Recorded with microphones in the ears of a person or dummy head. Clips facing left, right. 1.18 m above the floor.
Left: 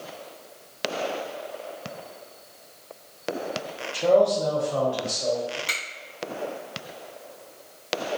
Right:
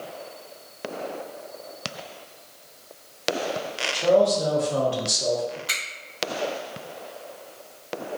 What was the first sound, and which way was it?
A man speaking, 10° left (ahead or behind).